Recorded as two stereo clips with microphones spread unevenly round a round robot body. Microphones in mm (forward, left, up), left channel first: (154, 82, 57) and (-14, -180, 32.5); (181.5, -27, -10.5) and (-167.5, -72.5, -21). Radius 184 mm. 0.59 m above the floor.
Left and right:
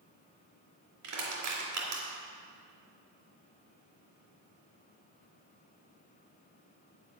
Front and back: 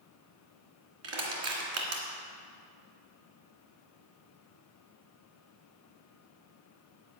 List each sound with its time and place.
1.0 s crushing: 170° right, 2.5 m